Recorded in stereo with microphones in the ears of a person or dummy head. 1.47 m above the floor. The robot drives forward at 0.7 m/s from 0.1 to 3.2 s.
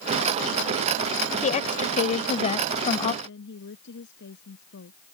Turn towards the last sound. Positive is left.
turn(degrees=70)  # may be behind; listen again after turning